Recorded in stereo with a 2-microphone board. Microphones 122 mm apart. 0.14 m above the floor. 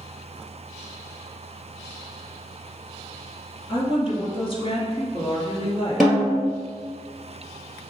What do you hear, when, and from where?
3.7 s a woman speaking: 45° left (ahead or behind), 1.8 m
6.0 s a snare drum: centre (ahead or behind), 1.9 m